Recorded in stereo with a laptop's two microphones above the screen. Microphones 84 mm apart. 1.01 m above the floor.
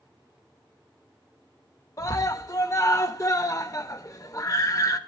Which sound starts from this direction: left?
A scream, at 2.0 s.